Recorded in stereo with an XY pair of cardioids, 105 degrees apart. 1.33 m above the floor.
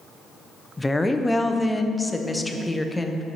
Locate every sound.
0.8 s a woman speaking: 10° left, 0.6 m